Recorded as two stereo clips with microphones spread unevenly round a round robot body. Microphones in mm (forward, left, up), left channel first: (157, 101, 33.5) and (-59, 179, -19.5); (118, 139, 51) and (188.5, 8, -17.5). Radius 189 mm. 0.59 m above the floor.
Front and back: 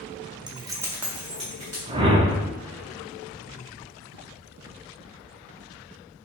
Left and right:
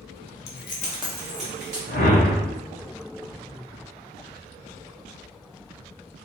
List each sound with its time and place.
0.5 s keys jangling: 115° left, 0.6 m; by 1.8 s 110° right, 0.9 m
1.9 s a whoosh: 150° left, 0.6 m